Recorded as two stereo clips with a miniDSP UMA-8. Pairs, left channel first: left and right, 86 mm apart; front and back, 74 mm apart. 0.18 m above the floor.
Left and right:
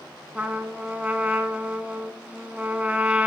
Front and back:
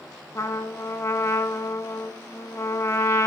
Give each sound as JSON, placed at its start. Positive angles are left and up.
{"t": 0.3, "sound": "a trumpet", "azimuth_deg": -25, "distance_m": 0.6}